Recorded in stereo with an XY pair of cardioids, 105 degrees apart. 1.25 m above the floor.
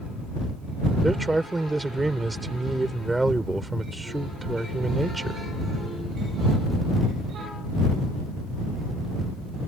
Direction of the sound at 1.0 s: 10° right.